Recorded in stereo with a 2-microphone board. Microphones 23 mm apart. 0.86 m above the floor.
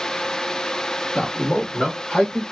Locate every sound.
1.1 s a man speaking: 60° left (ahead or behind), 1.1 m; by 2.4 s 65° left (ahead or behind), 2.5 m